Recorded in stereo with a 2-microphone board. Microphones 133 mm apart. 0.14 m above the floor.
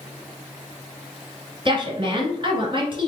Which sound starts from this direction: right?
A woman speaking, at 1.6 s.